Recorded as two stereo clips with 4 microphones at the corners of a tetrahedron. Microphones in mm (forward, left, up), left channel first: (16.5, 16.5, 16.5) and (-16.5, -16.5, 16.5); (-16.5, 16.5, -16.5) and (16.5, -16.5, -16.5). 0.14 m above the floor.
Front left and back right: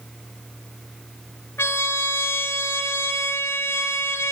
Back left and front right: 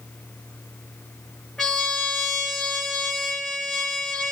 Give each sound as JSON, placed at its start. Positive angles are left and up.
{"t": 1.6, "sound": "a trumpet", "azimuth_deg": 55, "distance_m": 0.7}